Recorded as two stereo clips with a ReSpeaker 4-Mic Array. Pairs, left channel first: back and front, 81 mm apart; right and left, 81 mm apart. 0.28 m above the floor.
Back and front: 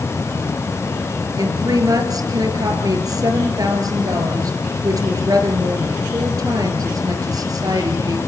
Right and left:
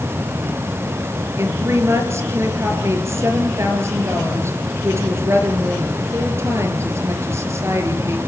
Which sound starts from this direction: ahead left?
A woman speaking, at 1.4 s.